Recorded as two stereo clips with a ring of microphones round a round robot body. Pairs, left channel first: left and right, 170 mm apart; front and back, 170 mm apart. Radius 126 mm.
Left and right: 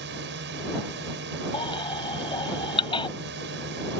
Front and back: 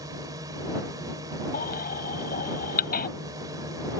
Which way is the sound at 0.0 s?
105° right.